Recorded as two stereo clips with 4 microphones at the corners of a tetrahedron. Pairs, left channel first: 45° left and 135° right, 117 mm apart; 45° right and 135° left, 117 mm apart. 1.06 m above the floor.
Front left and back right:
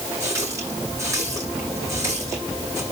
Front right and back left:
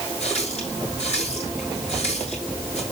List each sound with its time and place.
0.2 s a running tap: 70° right, 9 m